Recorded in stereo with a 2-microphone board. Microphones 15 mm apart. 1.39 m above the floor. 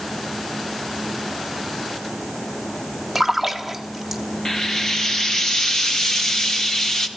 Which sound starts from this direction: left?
Frying, at 4.5 s.